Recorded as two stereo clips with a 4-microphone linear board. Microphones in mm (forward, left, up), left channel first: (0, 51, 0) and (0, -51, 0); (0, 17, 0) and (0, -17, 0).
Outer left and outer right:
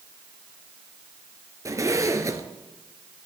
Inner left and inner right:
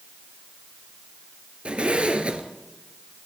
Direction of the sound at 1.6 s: 30° right (ahead or behind).